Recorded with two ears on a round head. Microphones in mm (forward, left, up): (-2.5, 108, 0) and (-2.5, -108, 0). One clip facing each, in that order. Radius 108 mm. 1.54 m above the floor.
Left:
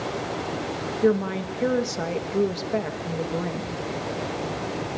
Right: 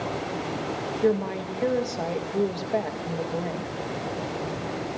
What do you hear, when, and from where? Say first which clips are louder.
1.0 s a woman speaking: left 2 dB; 15° left (ahead or behind), 2.5 m